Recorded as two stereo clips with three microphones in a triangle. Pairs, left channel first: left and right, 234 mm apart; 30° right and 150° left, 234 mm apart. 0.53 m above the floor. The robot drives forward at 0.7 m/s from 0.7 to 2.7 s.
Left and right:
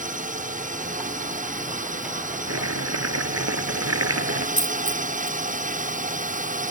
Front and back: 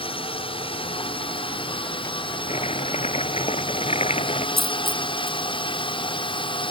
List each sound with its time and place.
0.0 s a drone: 75° right; by 6.7 s 80° right
2.5 s chopping: 95° right
4.6 s a dropped coin: 60° left